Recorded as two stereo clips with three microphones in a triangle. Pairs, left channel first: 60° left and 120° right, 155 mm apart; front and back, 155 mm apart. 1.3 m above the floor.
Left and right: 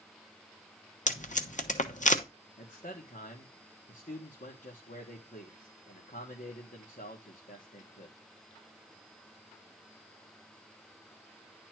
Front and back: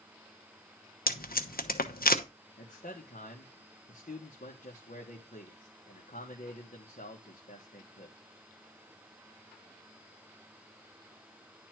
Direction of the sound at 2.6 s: 30° left.